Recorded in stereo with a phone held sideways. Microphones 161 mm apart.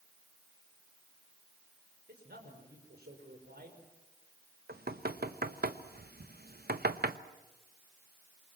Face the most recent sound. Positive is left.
turn(degrees=-75)  # may be behind; listen again after turning